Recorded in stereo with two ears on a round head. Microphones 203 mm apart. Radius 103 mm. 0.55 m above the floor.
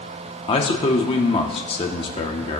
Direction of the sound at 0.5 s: 25° left (ahead or behind).